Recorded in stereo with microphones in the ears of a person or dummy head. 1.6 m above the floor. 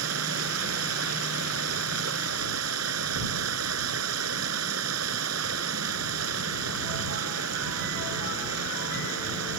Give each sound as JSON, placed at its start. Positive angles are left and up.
{"t": 0.0, "sound": "running water", "side_deg": -90}